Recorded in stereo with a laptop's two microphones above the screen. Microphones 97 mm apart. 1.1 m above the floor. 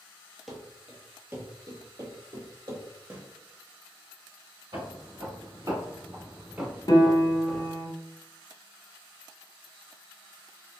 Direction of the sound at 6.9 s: 50° left (ahead or behind).